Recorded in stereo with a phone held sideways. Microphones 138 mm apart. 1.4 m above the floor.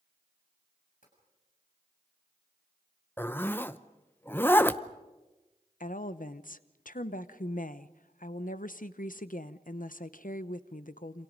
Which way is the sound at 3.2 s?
15° left (ahead or behind).